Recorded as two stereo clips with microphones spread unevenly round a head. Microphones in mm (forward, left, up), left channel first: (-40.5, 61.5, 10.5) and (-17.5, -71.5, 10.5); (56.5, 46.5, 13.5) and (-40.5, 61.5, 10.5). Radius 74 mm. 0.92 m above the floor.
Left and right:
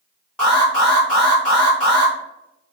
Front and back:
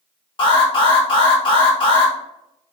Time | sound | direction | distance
0.4 | an alarm | 15° left | 1.4 m